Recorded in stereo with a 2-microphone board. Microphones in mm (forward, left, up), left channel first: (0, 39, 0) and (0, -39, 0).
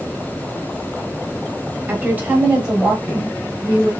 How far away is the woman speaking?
About 1.4 m.